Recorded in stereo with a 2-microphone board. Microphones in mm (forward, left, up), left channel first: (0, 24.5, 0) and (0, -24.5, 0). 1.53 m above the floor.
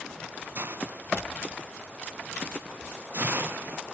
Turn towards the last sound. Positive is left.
turn(degrees=-50)  # may be behind; listen again after turning